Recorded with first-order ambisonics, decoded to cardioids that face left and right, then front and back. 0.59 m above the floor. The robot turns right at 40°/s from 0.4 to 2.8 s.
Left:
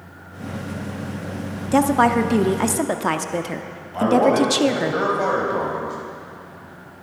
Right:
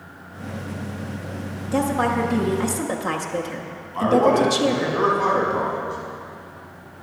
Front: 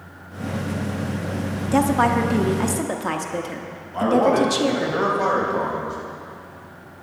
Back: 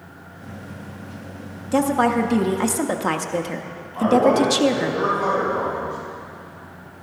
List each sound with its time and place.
1.7 s a woman speaking: 70° left, 0.6 m; by 4.9 s 115° left, 0.6 m
3.9 s a man speaking: 55° left, 4 m